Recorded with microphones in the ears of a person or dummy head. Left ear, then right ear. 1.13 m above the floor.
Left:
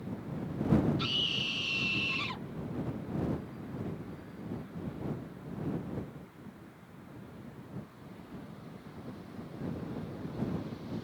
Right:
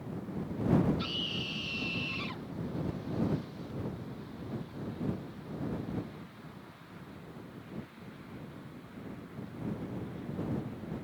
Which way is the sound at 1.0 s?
15° left (ahead or behind).